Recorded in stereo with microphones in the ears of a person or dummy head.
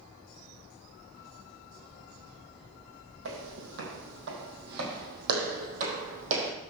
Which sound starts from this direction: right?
Footsteps, at 3.2 s.